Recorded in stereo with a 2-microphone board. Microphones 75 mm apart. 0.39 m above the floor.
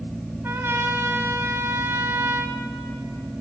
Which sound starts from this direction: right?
A trumpet, at 0.4 s.